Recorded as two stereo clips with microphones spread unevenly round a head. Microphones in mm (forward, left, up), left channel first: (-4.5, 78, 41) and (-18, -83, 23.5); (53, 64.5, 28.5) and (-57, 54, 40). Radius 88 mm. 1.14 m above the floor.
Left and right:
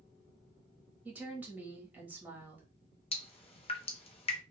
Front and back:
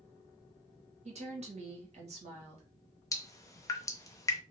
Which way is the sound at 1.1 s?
170° right.